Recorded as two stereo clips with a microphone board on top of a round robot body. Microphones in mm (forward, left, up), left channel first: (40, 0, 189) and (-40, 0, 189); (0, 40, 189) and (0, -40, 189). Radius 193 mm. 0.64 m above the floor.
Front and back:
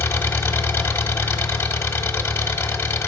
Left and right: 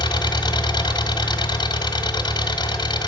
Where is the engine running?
60° left, 1.2 m.